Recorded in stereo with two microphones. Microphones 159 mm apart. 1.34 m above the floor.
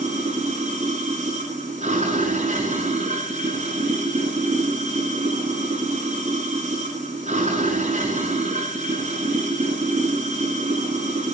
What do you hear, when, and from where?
0.0 s running water: 45° right (ahead or behind), 5 m